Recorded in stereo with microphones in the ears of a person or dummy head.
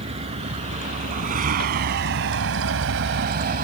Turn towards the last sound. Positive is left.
turn(degrees=-50)  # may be behind; listen again after turning